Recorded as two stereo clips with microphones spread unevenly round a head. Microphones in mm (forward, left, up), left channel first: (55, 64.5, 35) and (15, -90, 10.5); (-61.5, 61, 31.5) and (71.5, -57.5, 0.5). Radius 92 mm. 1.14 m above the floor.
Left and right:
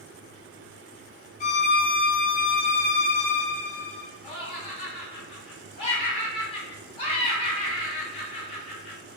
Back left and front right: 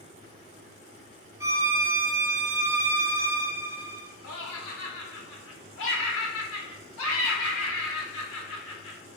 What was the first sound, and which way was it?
A violin, 35° left.